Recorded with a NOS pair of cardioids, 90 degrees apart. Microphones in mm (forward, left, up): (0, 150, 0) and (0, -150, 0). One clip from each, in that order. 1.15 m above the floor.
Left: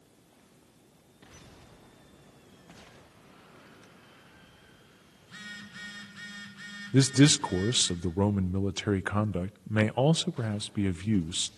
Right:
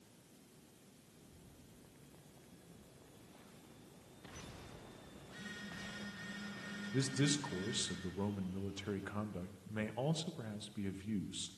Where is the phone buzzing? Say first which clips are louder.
Left 6 dB; 60° left, 4.5 m.